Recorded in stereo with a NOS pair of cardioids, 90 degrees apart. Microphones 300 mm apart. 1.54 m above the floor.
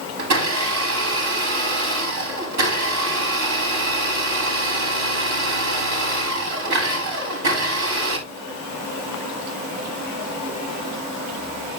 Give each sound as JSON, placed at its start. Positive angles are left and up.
{"t": 0.2, "sound": "a blender", "azimuth_deg": -65, "distance_m": 4.0}